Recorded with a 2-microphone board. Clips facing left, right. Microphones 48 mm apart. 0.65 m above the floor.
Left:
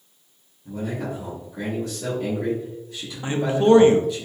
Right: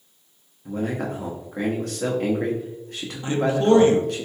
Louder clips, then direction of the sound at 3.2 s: Left 1 dB; 25° left (ahead or behind).